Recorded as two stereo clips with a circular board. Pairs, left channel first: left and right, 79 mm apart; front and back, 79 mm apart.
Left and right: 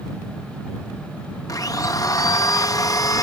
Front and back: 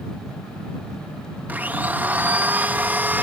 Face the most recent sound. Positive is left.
turn(degrees=120)